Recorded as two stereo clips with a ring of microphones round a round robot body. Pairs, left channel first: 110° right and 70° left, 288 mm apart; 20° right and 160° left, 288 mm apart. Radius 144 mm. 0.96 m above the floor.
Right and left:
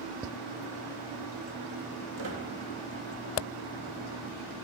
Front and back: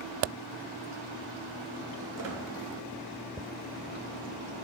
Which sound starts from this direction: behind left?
A squeak, at 2.2 s.